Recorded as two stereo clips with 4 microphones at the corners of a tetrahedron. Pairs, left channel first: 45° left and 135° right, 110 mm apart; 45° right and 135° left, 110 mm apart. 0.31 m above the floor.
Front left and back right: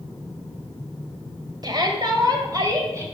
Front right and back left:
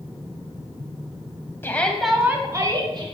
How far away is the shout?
About 1.3 m.